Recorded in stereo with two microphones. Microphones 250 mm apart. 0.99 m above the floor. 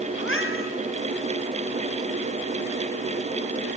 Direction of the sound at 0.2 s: 55° left (ahead or behind).